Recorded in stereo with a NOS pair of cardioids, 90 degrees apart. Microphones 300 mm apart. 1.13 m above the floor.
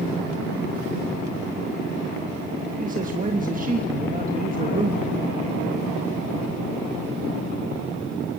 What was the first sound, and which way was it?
A man speaking, 25° right.